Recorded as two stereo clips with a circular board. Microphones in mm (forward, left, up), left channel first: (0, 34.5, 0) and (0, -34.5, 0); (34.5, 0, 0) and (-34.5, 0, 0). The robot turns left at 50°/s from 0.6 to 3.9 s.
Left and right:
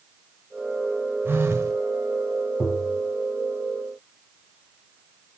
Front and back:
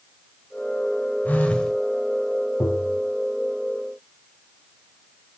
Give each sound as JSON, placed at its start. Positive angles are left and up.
{"t": 1.2, "sound": "a phone buzzing", "azimuth_deg": -55, "distance_m": 1.2}
{"t": 2.6, "sound": "tapping", "azimuth_deg": 45, "distance_m": 1.2}